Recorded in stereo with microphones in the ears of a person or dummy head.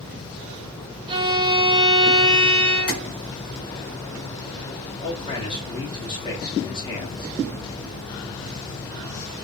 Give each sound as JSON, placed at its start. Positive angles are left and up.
{"t": 1.1, "sound": "a violin", "side_deg": -25, "distance_m": 0.5}
{"t": 2.9, "sound": "tapping", "side_deg": 35, "distance_m": 2.0}
{"t": 5.0, "sound": "a man speaking", "side_deg": 25, "distance_m": 1.5}